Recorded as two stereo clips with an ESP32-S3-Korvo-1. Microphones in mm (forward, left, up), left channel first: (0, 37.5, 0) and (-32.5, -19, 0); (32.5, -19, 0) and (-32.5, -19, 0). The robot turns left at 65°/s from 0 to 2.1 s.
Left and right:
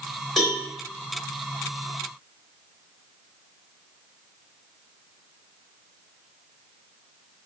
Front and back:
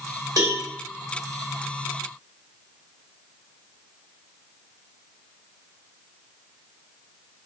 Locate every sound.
0.4 s a cowbell: 150° left, 2.0 m; by 0.6 s 135° left, 2.0 m